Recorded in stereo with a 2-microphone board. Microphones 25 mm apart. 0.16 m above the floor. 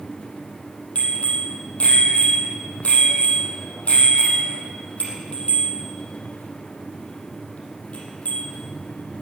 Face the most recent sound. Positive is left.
turn(degrees=55)  # may be behind; listen again after turning